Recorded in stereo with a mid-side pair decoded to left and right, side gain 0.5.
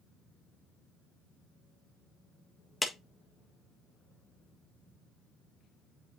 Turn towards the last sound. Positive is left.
turn(degrees=15)